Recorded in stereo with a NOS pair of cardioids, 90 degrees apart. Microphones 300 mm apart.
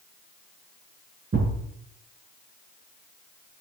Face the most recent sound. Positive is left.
turn(degrees=-35)